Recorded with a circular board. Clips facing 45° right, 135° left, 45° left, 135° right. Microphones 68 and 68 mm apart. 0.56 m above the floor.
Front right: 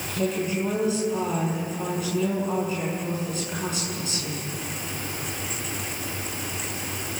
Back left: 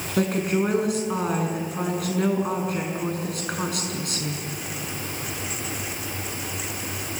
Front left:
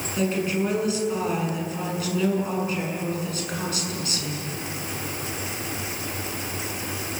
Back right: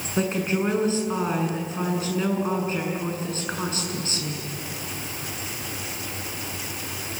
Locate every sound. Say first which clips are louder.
0.2 s a woman speaking: back left 3 dB, even; 165° left, 7 m